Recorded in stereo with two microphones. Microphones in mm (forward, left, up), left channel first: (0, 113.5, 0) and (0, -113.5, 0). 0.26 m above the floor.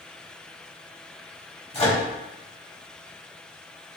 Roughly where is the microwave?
Left.